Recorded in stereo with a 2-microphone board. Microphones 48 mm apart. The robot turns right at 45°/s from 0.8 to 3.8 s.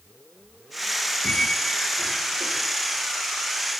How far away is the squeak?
About 0.5 m.